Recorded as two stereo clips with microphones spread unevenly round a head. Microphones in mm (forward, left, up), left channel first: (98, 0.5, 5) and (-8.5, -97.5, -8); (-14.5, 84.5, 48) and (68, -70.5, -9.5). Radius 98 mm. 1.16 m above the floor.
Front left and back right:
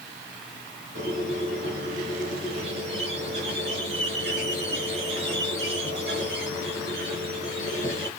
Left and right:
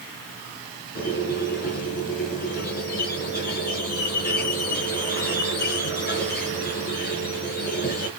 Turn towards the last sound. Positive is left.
turn(degrees=160)